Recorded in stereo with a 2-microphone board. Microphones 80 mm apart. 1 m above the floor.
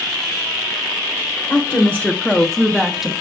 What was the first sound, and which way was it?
A woman speaking, 30° left (ahead or behind).